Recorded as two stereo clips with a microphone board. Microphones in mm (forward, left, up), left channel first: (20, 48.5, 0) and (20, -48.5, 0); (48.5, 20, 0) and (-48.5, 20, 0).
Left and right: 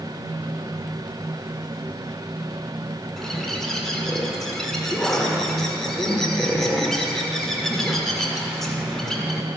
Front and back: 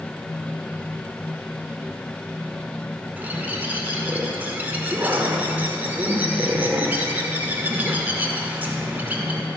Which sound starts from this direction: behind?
A bird, at 3.2 s.